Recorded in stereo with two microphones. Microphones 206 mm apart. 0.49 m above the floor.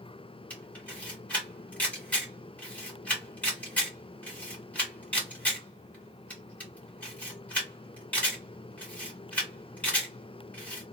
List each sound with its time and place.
0.5 s a camera shutter: 5° left (ahead or behind), 1.6 m